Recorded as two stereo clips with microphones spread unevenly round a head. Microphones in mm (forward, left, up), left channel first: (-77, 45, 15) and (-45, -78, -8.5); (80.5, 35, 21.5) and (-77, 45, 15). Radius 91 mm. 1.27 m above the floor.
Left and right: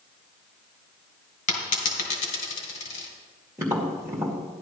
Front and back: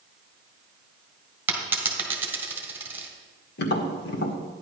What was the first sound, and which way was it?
A dropped coin, 100° left.